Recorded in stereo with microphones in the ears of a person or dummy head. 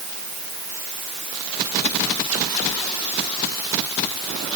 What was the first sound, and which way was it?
Only background noise.